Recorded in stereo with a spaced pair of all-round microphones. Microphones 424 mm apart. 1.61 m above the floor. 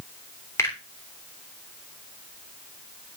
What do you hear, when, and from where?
0.6 s a finger snap: 5° left (ahead or behind), 3.5 m